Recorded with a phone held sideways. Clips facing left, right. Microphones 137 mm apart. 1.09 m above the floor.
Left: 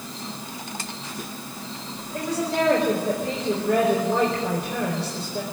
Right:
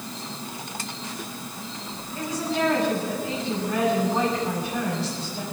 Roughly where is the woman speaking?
Left.